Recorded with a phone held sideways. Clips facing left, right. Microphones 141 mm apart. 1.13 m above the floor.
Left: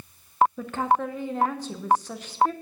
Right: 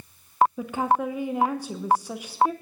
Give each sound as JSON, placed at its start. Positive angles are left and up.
{"t": 0.6, "sound": "a woman speaking", "side_deg": -10, "distance_m": 0.7}